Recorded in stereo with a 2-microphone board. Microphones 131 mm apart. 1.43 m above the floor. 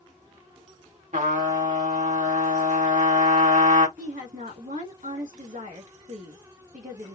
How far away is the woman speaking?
About 2 m.